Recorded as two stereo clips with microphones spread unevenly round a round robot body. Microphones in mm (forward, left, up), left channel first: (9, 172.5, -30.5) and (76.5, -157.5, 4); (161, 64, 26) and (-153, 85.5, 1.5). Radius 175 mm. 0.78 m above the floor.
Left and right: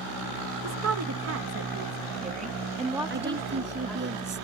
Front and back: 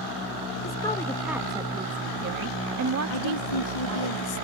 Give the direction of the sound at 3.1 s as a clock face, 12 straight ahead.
1 o'clock.